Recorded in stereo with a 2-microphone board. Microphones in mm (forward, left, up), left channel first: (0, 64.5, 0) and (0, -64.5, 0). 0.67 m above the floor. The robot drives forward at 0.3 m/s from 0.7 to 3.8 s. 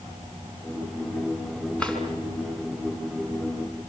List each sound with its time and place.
1.8 s a drawer: 10° left (ahead or behind), 4.5 m